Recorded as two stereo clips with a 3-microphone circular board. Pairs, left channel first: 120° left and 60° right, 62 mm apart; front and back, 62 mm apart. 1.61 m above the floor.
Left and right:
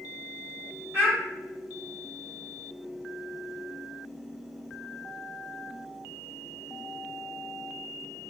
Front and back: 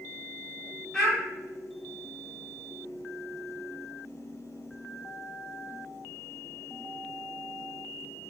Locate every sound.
0.9 s a child speaking: 75° right, 1.2 m